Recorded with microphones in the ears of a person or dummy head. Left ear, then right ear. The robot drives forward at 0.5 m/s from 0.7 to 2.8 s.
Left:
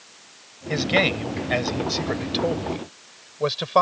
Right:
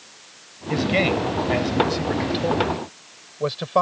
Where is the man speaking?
25° left (ahead or behind); by 3.8 s 30° left (ahead or behind).